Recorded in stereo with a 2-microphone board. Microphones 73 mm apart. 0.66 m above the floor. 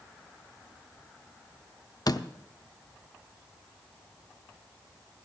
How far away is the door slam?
About 0.7 m.